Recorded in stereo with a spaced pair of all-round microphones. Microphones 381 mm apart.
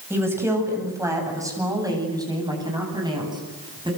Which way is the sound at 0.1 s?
5° right (ahead or behind).